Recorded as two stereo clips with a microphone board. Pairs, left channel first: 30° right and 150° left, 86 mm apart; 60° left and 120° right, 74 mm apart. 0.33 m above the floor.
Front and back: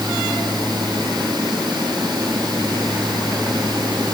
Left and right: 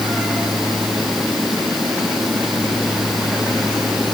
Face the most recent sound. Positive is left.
No sound to turn to.